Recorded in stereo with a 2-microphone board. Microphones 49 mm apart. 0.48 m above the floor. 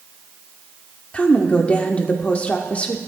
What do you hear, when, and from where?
1.1 s a woman speaking: 25° left (ahead or behind), 1.2 m